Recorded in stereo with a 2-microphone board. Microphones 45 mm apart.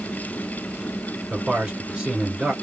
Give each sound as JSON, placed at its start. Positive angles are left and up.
{"t": 1.3, "sound": "a man speaking", "side_deg": -15, "distance_m": 2.0}